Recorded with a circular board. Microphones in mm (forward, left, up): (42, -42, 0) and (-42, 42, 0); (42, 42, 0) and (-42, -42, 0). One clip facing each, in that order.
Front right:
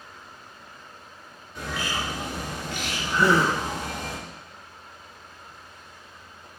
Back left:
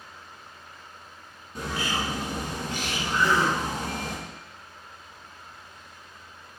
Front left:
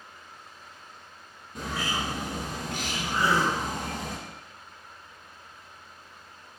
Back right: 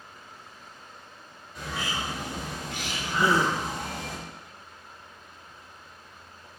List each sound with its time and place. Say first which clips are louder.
1.6 s a bird: back left 1 dB, front left 2 dB; 90° left, 3 m
3.2 s a gasp: front right 3 dB, back right 2 dB; 70° right, 1.4 m